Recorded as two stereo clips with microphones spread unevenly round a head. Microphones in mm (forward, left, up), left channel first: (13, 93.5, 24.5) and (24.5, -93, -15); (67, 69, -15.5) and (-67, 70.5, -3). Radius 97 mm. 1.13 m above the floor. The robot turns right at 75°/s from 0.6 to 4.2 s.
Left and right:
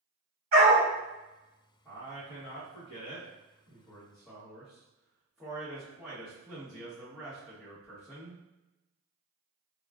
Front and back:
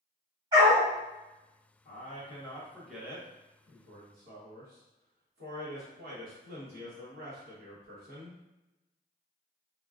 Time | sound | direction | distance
0.5 | a dog barking | 125° right | 1.1 m
1.9 | a man speaking | 10° left | 1.1 m